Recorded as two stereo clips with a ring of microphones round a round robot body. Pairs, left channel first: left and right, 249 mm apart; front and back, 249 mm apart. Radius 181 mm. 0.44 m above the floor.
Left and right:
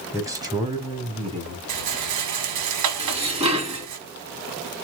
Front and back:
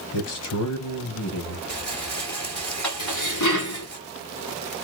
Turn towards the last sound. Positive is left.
turn(degrees=-25)